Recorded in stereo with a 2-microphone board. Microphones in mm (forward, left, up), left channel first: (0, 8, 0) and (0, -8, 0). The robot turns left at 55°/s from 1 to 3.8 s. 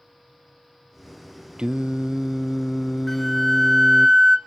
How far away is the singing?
About 0.6 m.